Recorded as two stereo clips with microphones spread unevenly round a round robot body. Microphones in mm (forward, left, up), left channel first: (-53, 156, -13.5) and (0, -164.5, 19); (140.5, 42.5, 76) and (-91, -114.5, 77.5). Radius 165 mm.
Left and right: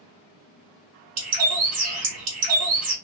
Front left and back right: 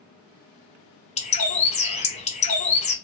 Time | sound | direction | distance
1.2 | a bird | 30° right | 1.7 m